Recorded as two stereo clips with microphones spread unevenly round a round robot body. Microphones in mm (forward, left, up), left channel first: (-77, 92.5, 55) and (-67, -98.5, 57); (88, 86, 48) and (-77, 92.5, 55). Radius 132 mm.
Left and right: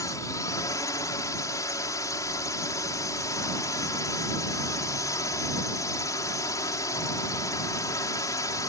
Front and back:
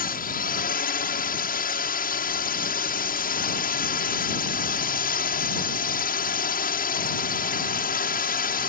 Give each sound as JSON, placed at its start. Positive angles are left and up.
{"t": 0.0, "sound": "a drone", "azimuth_deg": 20}